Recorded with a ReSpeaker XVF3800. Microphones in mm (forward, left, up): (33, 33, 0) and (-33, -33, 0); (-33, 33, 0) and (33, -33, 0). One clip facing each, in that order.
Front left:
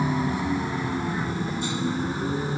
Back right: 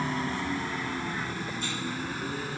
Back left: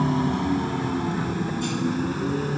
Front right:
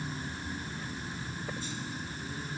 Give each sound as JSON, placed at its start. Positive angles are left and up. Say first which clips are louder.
{"t": 0.0, "sound": "a vehicle", "louder": "front left 5 dB, back left 17 dB", "azimuth_deg": 125}